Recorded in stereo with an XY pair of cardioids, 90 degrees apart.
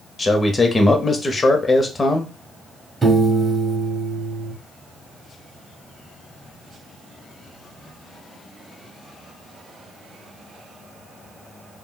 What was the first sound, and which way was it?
A man speaking, 30° left.